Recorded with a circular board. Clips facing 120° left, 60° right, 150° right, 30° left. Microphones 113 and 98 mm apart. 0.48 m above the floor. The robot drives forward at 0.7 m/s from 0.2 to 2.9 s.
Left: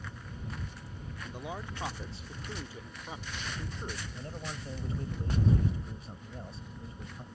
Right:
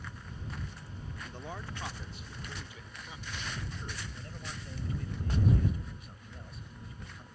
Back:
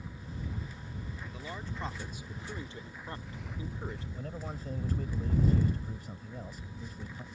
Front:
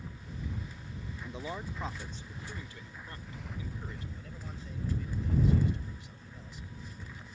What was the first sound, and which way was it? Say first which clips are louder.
A man speaking: left 4 dB, front 5 dB; 45° left.